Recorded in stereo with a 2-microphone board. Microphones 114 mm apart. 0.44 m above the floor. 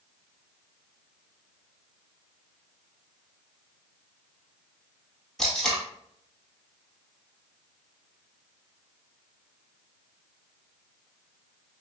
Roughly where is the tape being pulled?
Centre.